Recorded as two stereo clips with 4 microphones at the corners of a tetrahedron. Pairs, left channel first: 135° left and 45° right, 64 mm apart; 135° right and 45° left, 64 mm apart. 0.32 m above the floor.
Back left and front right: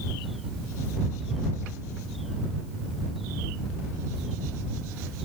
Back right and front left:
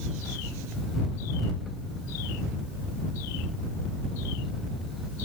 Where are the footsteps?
I don't hear footsteps.